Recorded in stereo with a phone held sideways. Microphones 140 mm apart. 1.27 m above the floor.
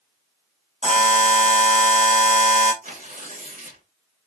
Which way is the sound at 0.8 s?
60° left (ahead or behind).